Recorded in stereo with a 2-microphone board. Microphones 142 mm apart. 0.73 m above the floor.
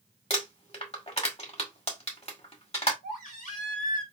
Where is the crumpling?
50° left (ahead or behind), 1.8 m.